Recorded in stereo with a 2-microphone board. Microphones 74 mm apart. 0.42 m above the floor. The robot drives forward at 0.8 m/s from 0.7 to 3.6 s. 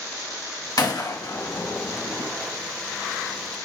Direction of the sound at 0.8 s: 65° left (ahead or behind).